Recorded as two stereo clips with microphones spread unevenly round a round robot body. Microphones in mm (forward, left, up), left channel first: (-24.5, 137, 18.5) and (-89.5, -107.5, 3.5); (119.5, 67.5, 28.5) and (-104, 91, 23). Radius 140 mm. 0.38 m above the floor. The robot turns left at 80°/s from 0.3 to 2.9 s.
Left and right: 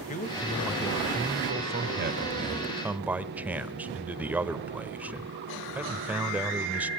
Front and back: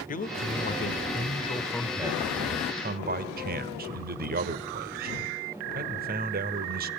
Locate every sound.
0.1 s a man speaking: 25° left, 1.3 m; by 6.9 s 175° left, 1.3 m